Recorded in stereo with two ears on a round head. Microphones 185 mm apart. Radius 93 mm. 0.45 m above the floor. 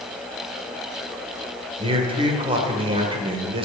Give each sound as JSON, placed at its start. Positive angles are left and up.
{"t": 1.8, "sound": "a man speaking", "side_deg": -25, "distance_m": 1.8}